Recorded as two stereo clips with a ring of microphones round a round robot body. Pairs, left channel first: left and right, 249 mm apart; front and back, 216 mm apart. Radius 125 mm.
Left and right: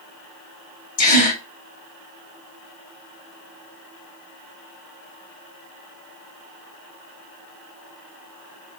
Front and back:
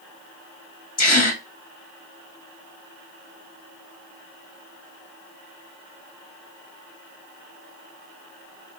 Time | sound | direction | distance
1.0 | a gasp | 35° left | 2 m